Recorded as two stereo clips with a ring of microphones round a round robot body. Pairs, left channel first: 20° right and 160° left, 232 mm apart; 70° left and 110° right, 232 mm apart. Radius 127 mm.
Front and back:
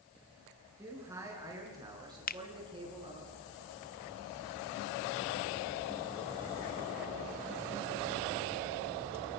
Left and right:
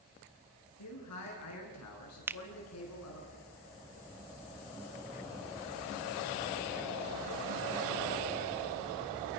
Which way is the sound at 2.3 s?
35° right.